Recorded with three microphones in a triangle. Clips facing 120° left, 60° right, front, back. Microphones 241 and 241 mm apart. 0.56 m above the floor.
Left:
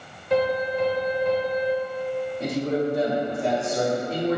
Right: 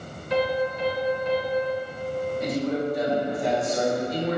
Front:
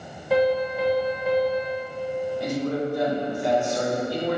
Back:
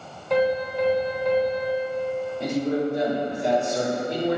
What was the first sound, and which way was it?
A piano, 85° left.